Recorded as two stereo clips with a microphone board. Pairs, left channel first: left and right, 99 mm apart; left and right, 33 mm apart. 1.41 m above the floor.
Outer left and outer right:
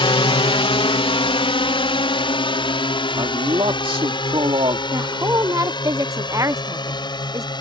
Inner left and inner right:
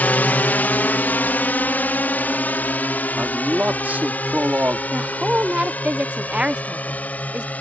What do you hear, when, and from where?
0.0 s a drone: 60° left (ahead or behind); by 7.6 s 50° left (ahead or behind)
3.2 s a man speaking: 60° right (ahead or behind)
4.9 s a woman speaking: 35° right (ahead or behind)